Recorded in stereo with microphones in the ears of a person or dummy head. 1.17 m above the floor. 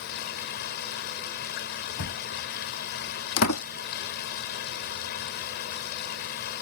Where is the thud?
70° left (ahead or behind).